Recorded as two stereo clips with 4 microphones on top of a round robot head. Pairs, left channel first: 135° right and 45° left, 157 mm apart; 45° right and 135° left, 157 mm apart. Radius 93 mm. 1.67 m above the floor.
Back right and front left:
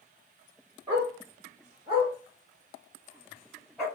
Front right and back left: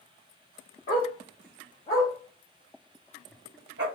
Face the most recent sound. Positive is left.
turn(degrees=135)